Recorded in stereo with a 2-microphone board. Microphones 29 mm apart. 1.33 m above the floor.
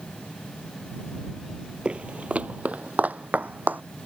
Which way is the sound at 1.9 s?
40° right (ahead or behind).